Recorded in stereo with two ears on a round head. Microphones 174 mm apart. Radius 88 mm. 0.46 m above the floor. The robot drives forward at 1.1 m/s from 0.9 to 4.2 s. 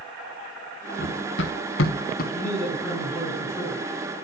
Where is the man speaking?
10° left (ahead or behind), 5.5 m; by 3.8 s 15° left (ahead or behind), 4 m.